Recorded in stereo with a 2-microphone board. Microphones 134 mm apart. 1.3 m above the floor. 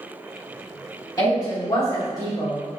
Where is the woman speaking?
30° left (ahead or behind), 1.7 m; by 2.6 s 25° left (ahead or behind), 0.8 m.